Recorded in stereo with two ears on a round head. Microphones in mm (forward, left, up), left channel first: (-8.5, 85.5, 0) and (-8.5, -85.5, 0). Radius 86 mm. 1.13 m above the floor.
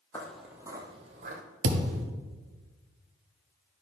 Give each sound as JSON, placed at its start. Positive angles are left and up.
{"t": 0.1, "sound": "footsteps", "side_deg": 10, "distance_m": 1.3}
{"t": 1.6, "sound": "a thud", "side_deg": -70, "distance_m": 1.1}